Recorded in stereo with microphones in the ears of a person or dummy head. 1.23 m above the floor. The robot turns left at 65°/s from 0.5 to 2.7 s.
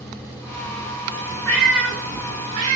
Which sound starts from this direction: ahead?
A cat meowing, at 1.4 s.